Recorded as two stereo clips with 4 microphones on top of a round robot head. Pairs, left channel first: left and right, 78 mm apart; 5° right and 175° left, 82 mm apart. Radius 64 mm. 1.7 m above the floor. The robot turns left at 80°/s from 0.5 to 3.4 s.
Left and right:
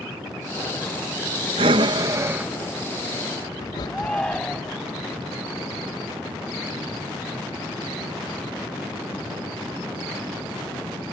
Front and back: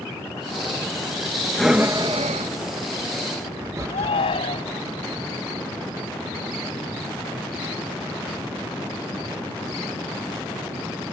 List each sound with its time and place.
1.6 s breathing: 90° right; by 4.8 s 120° left
3.9 s a shout: 5° left